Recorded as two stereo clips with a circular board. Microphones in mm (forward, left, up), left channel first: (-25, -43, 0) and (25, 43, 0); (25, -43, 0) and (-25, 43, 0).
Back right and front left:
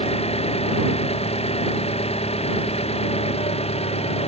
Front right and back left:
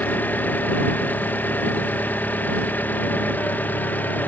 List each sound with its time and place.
0.0 s an engine running: 135° right